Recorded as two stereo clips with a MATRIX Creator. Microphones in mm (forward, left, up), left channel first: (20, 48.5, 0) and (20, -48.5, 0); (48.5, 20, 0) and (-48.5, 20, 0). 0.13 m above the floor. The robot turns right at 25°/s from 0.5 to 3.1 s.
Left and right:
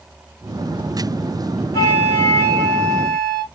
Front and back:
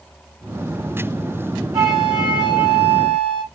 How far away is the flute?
About 2.5 m.